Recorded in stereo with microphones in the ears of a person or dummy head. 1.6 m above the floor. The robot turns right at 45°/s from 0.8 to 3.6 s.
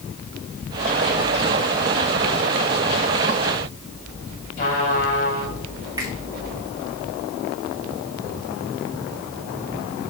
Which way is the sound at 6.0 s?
20° right (ahead or behind).